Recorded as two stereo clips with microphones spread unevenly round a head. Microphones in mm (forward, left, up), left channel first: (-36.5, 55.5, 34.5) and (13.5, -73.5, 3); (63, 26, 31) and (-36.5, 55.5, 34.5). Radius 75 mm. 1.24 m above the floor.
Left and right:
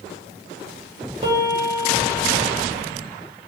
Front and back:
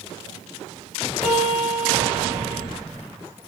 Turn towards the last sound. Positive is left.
turn(degrees=-110)